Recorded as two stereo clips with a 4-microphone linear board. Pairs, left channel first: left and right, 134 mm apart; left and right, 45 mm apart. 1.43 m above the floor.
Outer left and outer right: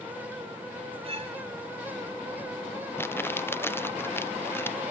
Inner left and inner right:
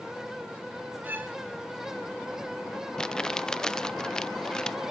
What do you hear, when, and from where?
1.0 s a violin: 45° right (ahead or behind), 5 m
3.0 s crumpling: 15° left (ahead or behind), 0.5 m